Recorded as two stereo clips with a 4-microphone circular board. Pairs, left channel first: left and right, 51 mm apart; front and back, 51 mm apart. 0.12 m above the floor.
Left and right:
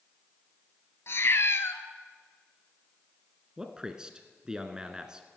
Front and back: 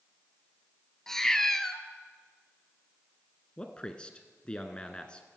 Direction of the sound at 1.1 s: 80° left.